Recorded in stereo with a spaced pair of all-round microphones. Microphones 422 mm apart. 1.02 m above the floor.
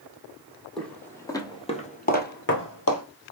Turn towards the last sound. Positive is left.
turn(degrees=35)  # may be behind; listen again after turning